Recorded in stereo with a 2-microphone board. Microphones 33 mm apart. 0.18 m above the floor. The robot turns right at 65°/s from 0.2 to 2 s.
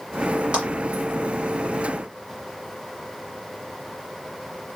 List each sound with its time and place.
0.5 s a clap: 30° right (ahead or behind), 2 m; by 0.6 s 35° right (ahead or behind), 2 m